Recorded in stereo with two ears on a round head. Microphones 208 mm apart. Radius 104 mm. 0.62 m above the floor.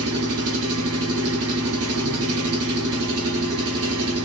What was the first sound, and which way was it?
An engine running, 70° right (ahead or behind).